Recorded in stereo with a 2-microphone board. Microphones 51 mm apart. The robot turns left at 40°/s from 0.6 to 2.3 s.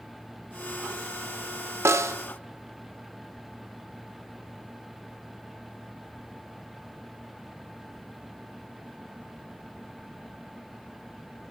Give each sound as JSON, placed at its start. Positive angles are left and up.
{"t": 1.9, "sound": "a snare drum", "side_deg": -60, "distance_m": 0.6}